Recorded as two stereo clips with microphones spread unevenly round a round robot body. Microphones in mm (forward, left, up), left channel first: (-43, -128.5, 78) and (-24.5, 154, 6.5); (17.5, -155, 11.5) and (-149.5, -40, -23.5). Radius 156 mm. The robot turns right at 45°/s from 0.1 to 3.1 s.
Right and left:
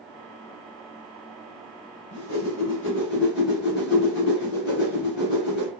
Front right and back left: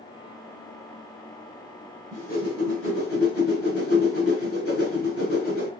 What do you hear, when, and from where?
2.1 s a whoosh: 90° right, 1.9 m; by 5.7 s 45° right, 1.9 m